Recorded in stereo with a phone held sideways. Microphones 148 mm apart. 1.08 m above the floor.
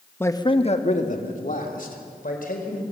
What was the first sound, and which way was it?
A man speaking, 15° left (ahead or behind).